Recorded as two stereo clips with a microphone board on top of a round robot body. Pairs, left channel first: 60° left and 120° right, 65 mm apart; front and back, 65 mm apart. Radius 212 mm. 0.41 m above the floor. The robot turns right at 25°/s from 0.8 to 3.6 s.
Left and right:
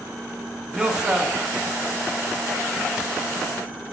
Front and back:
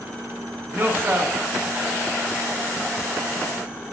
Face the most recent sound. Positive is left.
turn(degrees=-120)